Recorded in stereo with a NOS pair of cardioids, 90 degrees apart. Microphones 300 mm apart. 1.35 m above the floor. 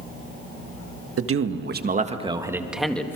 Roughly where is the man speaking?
Ahead right.